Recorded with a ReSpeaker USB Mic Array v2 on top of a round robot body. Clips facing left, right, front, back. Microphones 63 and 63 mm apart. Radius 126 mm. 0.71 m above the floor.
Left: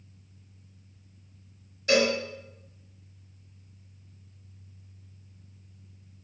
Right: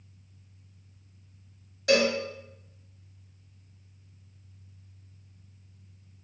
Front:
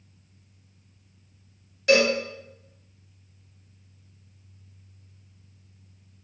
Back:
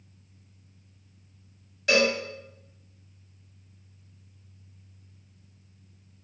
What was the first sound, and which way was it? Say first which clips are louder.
A cowbell: even, front 3 dB; 85° right.